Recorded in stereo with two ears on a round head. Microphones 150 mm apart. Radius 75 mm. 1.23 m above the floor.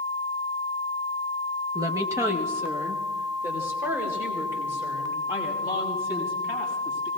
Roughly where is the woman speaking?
Right.